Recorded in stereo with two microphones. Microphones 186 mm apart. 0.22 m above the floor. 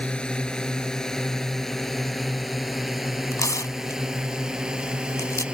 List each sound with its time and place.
0.0 s a drone: 5° left (ahead or behind); by 5.5 s 5° right (ahead or behind)
3.3 s tearing paper: 15° left (ahead or behind)